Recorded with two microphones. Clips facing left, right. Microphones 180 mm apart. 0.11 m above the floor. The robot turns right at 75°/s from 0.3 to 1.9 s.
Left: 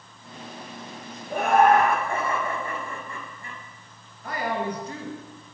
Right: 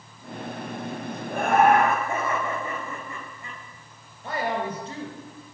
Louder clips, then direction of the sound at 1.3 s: Left 1 dB; 165° left.